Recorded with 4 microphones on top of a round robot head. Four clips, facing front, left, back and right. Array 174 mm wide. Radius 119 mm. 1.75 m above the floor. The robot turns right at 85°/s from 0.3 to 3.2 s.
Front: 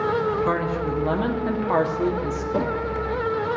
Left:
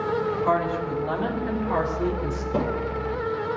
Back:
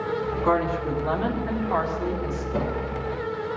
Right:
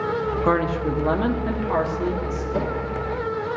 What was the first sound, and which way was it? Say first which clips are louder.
A woman speaking: right 5 dB, back 1 dB; 115° right.